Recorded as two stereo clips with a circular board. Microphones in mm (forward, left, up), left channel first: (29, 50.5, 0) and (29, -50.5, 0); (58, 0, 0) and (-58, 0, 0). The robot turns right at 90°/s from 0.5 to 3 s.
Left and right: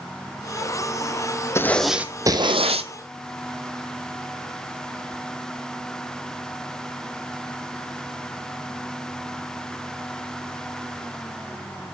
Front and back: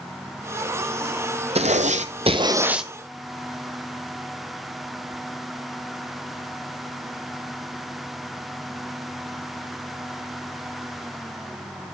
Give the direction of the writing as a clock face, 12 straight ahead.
7 o'clock.